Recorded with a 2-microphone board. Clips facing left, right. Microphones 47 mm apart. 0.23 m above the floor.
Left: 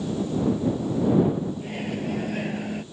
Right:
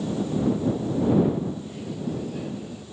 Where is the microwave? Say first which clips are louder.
Left 3 dB; 60° left (ahead or behind).